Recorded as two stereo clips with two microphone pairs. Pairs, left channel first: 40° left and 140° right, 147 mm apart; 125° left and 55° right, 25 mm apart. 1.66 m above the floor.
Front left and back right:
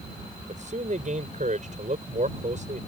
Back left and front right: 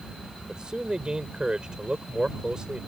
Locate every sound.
0.5 s a man speaking: 110° right